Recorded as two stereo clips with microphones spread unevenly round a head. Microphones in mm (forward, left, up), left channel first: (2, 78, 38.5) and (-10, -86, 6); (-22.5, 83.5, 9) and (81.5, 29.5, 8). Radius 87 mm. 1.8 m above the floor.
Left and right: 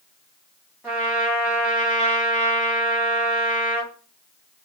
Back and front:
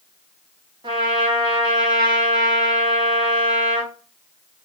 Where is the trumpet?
5° right, 1.2 m.